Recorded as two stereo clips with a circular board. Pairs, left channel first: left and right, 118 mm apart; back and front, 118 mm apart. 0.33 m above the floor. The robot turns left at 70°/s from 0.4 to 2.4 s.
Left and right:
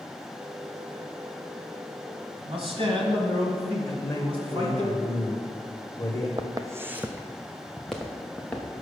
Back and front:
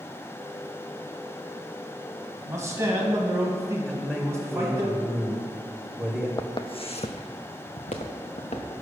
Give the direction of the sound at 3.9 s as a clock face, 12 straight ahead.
9 o'clock.